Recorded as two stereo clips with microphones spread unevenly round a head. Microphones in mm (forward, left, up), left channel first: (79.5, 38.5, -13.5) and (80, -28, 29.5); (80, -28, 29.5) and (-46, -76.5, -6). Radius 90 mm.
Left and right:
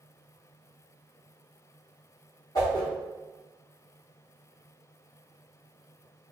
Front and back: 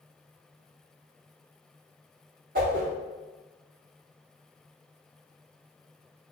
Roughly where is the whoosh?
Behind.